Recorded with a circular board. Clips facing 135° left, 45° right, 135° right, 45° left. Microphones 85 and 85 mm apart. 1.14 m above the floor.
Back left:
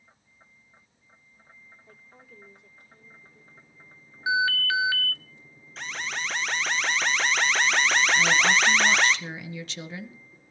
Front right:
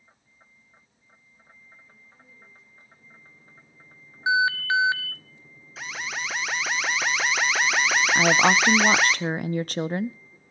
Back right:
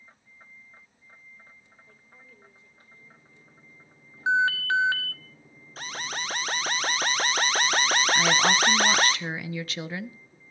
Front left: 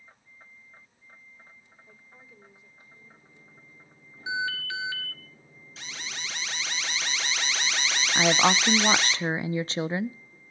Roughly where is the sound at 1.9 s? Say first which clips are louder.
Back left 3 dB, front left 2 dB; behind left.